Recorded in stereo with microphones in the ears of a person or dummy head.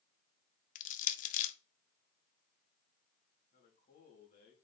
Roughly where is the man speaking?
Left.